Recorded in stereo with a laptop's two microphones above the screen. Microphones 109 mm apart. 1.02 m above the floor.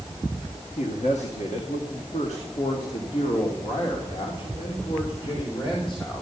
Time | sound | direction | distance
0.8 | a man speaking | 80° left | 1.4 m